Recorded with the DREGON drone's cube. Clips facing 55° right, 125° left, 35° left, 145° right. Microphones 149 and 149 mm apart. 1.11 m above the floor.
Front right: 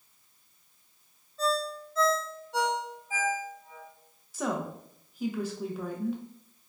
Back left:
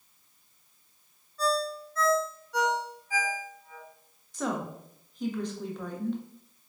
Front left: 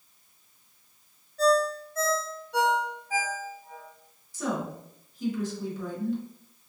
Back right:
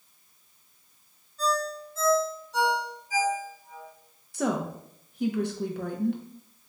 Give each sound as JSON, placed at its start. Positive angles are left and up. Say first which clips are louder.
{"t": 1.4, "sound": "a ringtone", "louder": "back left 1 dB, front left 6 dB", "azimuth_deg": 10, "distance_m": 1.0}
{"t": 4.3, "sound": "a woman speaking", "louder": "even, back right 3 dB", "azimuth_deg": -140, "distance_m": 0.8}